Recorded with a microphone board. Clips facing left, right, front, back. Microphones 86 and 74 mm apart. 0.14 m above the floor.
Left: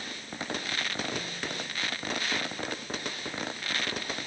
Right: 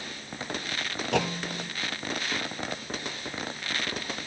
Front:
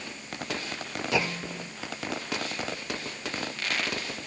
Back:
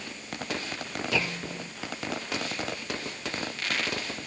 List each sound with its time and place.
1.1 s a clunk: 75° right